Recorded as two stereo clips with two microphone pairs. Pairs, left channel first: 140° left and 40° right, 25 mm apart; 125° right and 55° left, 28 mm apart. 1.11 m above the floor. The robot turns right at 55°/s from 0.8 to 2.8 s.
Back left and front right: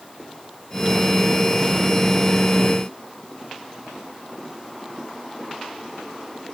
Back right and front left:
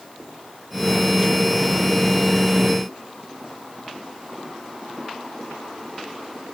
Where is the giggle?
No giggle in this recording.